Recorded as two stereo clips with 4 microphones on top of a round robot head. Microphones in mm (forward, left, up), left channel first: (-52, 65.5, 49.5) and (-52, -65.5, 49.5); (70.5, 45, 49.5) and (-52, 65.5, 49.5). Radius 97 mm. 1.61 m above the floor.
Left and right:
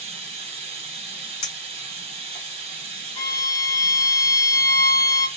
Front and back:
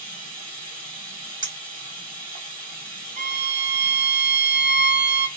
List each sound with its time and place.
0.0 s running water: 125° right, 1.3 m
1.4 s a clink: 120° left, 1.3 m
3.2 s a violin: 150° left, 0.9 m